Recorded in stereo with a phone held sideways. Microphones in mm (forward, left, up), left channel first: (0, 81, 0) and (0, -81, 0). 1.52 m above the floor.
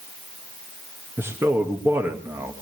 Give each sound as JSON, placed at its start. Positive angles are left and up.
{"t": 1.2, "sound": "a man speaking", "side_deg": -15, "distance_m": 1.8}